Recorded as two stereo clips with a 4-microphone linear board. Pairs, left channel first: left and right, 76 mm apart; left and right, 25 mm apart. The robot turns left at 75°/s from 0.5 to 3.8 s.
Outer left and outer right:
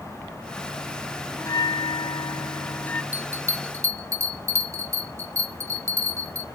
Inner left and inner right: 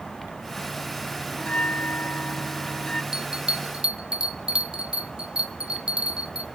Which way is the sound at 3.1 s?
25° right (ahead or behind).